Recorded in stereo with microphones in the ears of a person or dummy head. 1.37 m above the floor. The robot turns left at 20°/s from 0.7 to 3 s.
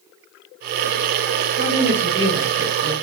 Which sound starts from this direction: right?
A woman speaking, at 1.6 s.